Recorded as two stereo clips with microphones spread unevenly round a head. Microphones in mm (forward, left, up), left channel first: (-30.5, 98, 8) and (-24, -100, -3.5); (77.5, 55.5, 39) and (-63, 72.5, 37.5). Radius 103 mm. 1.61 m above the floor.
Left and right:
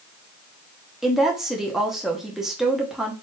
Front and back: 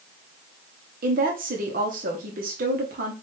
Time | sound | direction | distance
1.0 | a woman speaking | straight behind | 0.8 m